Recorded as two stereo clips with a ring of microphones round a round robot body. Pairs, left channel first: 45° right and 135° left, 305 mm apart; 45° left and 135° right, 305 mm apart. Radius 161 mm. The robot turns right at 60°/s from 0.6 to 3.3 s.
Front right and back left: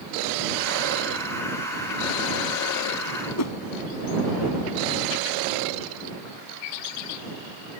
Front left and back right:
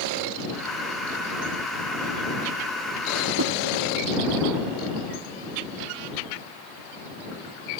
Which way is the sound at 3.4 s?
85° right.